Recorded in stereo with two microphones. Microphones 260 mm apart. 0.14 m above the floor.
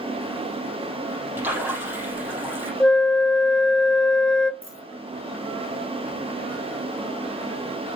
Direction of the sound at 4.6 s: 50° left (ahead or behind).